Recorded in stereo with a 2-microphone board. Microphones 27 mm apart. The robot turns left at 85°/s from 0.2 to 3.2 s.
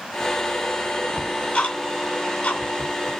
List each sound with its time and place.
1.2 s ticking: 5° left (ahead or behind), 2.5 m; by 3.1 s 10° left (ahead or behind), 2.5 m